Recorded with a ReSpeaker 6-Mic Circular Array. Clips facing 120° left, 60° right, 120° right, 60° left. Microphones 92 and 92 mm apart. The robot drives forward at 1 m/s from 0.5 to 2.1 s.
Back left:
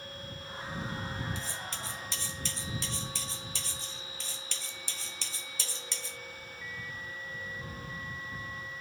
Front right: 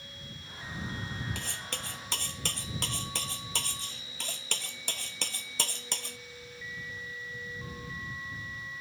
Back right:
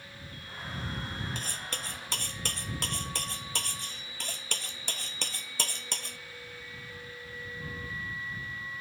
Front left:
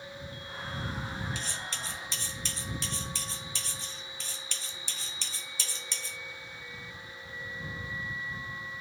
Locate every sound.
1.4 s cutlery clinking: 80° right; by 6.2 s 90° right